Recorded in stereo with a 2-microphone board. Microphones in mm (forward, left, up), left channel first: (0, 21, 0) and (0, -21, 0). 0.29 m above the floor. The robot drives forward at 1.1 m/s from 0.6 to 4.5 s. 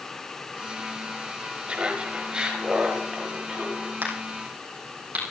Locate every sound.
1.7 s laughter: 25° right (ahead or behind), 1.6 m; by 3.9 s 15° right (ahead or behind), 3 m
4.0 s a crack: 45° right (ahead or behind), 5.5 m